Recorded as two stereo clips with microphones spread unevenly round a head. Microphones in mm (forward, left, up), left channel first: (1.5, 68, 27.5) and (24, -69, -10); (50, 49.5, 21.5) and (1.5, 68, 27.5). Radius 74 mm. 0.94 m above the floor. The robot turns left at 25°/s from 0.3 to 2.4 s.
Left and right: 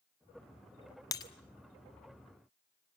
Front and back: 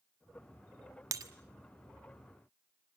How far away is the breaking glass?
About 1.2 m.